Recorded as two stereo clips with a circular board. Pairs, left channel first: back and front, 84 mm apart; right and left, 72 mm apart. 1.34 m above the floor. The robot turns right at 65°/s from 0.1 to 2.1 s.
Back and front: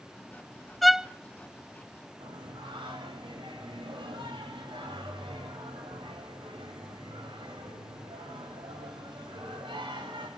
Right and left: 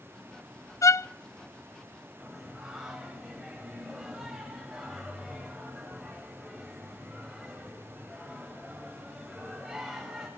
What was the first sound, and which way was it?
A violin, 95° right.